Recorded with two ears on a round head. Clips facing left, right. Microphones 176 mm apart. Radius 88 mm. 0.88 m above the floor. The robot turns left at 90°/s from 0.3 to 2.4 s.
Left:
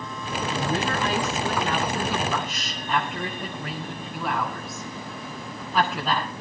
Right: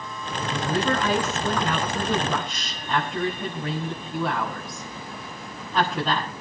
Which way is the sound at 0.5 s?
10° right.